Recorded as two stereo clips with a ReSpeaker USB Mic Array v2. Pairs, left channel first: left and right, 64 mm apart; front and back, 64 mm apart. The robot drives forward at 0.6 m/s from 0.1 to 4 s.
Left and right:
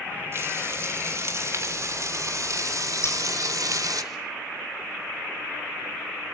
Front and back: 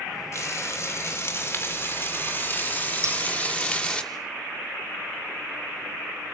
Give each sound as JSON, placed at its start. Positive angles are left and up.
{"t": 0.3, "sound": "frying", "azimuth_deg": -40, "distance_m": 4.0}
{"t": 3.0, "sound": "scissors", "azimuth_deg": 135, "distance_m": 6.0}